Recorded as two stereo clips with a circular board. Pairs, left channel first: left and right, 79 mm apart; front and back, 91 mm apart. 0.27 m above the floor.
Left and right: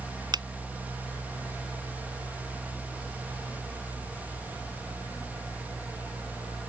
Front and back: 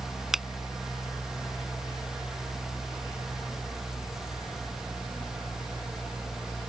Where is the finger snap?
95° right.